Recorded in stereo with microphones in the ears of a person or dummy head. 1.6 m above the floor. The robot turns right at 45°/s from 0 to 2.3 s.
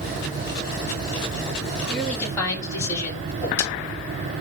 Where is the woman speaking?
5° right (ahead or behind), 3 m; by 3.2 s 15° left (ahead or behind), 3 m.